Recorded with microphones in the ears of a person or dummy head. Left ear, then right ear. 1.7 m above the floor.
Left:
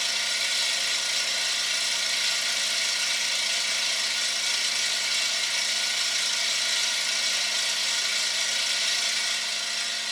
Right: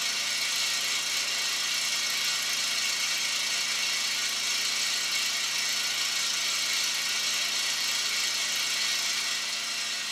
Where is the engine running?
30° left (ahead or behind), 2.5 m.